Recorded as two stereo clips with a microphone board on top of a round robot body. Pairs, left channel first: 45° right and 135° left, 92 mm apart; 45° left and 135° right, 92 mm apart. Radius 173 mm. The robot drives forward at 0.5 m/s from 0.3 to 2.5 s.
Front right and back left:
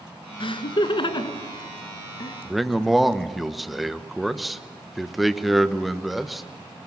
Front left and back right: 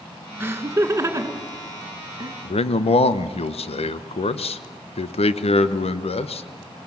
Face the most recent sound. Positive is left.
turn(degrees=45)